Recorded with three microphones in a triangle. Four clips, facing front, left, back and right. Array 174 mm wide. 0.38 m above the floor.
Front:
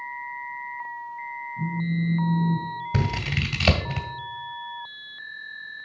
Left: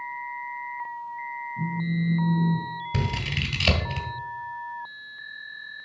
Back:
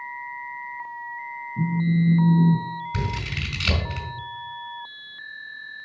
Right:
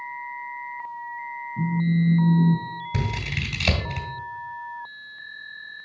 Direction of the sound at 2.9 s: 10° left.